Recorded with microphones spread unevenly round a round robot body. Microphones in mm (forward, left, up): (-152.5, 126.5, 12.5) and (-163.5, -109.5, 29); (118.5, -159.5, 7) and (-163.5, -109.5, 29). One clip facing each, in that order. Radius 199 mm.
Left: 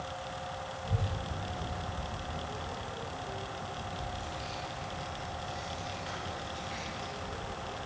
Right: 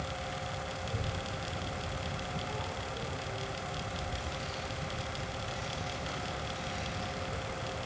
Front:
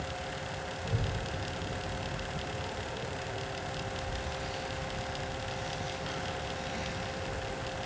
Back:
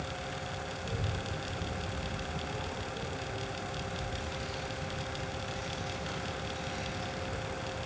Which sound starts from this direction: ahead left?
A child speaking, at 0.8 s.